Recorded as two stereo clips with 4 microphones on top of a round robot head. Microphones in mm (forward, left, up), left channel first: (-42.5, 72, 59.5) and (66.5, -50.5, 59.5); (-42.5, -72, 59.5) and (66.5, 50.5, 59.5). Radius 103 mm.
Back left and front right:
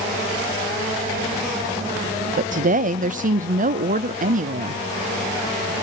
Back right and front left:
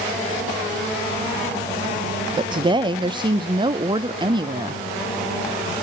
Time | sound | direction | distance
2.4 | a woman speaking | 15° right | 0.5 m